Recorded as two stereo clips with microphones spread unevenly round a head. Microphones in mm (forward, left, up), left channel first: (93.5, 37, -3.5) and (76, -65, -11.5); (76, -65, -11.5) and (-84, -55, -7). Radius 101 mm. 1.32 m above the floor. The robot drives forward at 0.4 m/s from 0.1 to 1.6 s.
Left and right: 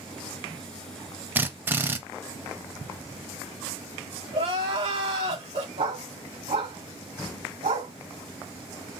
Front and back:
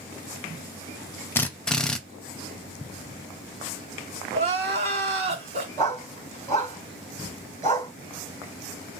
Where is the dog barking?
150° right, 2.5 m.